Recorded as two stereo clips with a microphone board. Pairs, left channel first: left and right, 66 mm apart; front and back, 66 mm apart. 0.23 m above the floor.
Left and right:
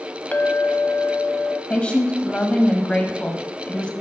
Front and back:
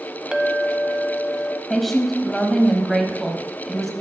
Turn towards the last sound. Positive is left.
turn(degrees=80)